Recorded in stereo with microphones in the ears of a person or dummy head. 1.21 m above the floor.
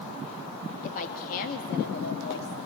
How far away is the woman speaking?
About 1.2 m.